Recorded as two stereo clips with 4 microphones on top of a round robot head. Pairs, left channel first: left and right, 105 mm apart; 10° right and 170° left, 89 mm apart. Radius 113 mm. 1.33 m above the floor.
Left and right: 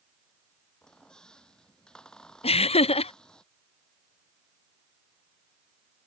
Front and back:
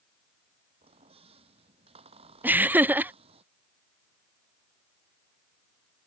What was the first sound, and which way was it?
A squeak, 175° left.